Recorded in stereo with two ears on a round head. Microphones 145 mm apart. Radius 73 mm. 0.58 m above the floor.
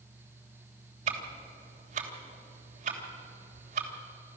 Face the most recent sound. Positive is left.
turn(degrees=-55)  # may be behind; listen again after turning